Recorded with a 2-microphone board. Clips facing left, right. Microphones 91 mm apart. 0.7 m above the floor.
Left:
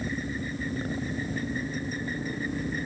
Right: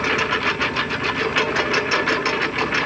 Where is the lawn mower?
80° right.